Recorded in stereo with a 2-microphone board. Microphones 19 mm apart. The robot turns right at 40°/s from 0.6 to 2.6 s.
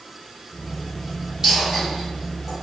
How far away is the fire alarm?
I don't hear a fire alarm.